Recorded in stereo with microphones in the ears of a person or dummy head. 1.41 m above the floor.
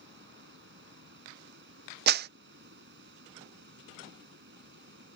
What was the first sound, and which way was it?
Running water, 70° right (ahead or behind).